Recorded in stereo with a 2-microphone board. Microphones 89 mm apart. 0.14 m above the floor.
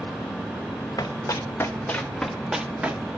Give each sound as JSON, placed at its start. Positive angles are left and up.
{"t": 1.0, "sound": "running footsteps", "side_deg": 45, "distance_m": 1.0}